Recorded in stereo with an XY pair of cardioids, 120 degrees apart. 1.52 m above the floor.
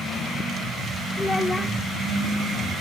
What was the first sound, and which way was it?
A child speaking, 15° left.